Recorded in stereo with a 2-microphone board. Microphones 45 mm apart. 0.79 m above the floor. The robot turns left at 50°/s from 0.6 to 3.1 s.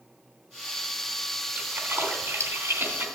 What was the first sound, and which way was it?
A splash, 45° right (ahead or behind).